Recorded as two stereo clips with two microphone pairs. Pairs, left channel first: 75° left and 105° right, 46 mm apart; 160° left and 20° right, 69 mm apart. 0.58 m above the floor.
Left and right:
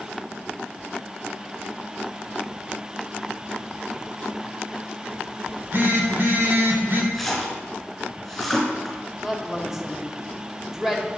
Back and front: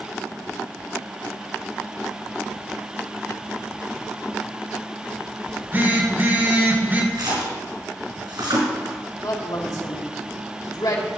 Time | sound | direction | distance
5.5 | a phone buzzing | 75° right | 1.8 m
7.1 | a splash | 15° right | 4 m
9.2 | a woman speaking | 170° left | 2 m